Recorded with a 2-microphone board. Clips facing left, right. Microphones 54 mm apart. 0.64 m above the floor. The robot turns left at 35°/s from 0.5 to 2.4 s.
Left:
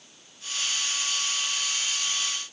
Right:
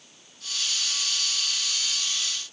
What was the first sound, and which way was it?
Only background noise.